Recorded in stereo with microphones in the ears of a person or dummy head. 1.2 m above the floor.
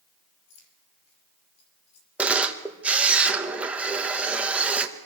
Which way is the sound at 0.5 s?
80° left.